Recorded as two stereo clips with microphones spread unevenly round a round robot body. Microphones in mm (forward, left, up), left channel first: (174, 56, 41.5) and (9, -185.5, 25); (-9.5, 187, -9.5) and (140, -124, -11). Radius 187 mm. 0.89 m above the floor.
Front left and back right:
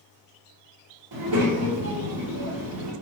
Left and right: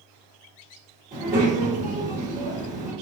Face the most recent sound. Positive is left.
turn(degrees=-135)